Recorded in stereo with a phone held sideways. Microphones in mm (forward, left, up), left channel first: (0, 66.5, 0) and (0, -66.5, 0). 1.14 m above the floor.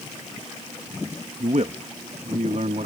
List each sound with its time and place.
1.4 s a man speaking: 65° right (ahead or behind); by 2.9 s 70° right (ahead or behind)